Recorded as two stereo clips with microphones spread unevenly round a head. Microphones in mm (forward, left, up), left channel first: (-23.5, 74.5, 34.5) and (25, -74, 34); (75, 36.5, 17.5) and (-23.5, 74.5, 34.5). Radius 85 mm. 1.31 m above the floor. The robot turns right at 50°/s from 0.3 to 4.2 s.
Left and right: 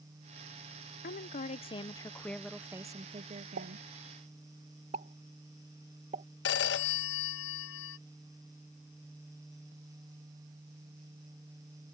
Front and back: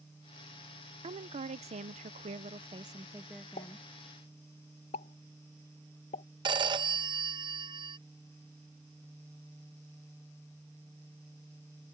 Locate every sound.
1.0 s a woman speaking: 130° left; by 3.8 s 90° right
3.6 s a pop: 55° right; by 6.2 s 25° right
6.5 s a phone ringing: 120° left